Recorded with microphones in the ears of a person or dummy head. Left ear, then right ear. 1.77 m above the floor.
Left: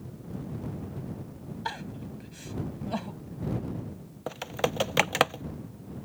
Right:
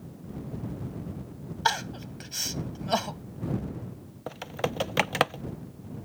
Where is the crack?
No crack in this recording.